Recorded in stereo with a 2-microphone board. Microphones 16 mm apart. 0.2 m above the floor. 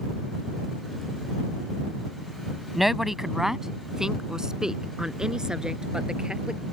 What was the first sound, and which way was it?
A woman speaking, 10° right (ahead or behind).